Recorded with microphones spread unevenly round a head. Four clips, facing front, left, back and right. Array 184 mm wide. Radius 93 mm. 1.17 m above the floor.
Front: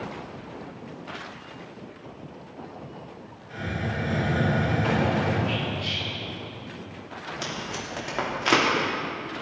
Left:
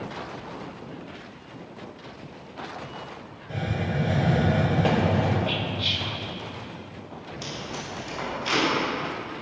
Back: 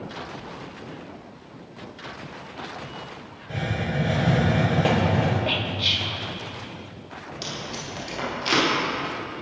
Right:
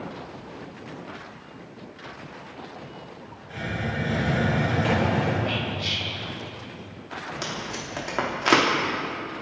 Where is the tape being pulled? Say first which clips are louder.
Right 2 dB, even; 70° right, 3.5 m.